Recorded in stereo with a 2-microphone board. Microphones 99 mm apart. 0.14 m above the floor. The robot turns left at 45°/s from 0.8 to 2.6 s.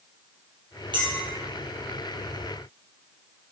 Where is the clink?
50° right (ahead or behind), 2.5 m; by 1.2 s 60° right (ahead or behind), 2.5 m.